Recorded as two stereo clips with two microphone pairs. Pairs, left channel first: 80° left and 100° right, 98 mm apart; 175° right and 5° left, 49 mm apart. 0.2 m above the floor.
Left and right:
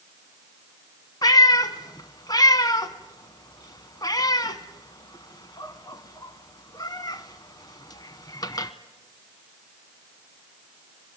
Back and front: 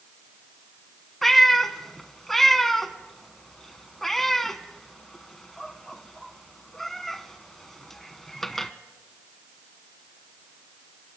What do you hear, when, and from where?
1.2 s a cat meowing: 100° left, 0.9 m